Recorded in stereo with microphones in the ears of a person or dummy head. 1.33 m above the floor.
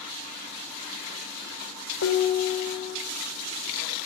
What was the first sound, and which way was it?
Dishes clattering, 65° left (ahead or behind).